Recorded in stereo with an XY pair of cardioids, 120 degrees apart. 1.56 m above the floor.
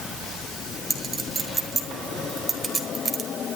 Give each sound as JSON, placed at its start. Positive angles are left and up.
{"t": 0.9, "sound": "a clink", "azimuth_deg": -25, "distance_m": 5.0}